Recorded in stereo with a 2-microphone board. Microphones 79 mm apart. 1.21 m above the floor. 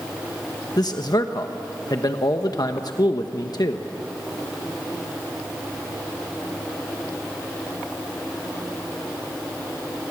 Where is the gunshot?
No gunshot in this recording.